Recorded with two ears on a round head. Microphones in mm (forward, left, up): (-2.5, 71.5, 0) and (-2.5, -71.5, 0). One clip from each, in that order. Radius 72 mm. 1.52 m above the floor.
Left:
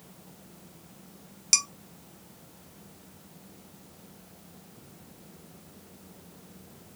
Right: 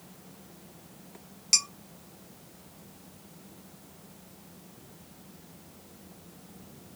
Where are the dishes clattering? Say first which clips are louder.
Left 1 dB; 15° left (ahead or behind), 0.6 m.